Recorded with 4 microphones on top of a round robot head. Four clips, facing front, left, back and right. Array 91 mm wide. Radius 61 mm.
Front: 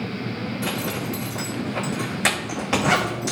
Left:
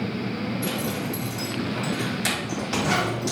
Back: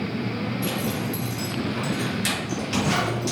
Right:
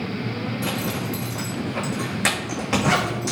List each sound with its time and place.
0.6 s a zipper: 45° right, 3 m